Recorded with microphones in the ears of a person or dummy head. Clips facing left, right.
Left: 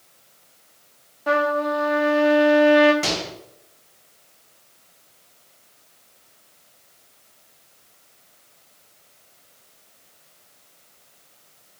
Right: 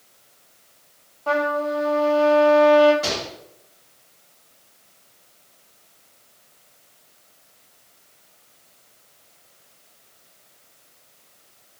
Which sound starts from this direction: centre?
A trumpet, at 1.3 s.